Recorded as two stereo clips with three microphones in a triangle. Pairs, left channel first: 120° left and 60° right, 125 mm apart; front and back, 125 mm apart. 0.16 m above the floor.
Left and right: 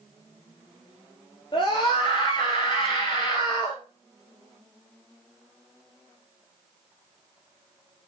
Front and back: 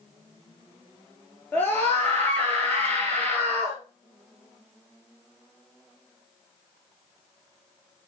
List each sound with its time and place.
1.5 s a scream: 75° left, 2.5 m